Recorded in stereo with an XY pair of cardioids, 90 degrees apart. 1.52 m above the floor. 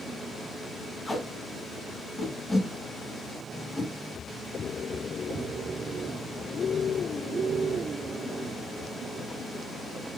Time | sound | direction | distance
1.1 | tape being pulled | 20° left | 2.0 m